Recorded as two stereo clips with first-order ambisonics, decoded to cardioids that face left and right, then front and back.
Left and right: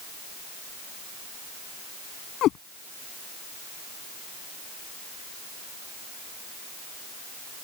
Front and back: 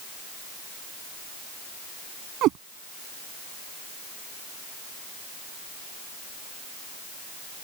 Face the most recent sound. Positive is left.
turn(degrees=140)